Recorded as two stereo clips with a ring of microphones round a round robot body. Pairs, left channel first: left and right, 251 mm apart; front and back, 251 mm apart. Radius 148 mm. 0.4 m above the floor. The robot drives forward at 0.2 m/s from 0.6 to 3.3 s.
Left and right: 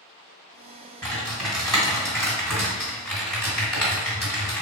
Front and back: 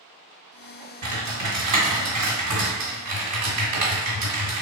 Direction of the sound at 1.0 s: Straight behind.